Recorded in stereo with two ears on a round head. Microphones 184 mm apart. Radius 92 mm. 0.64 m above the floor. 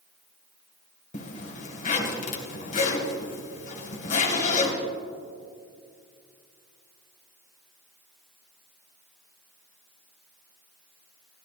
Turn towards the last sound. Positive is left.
turn(degrees=40)  # may be behind; listen again after turning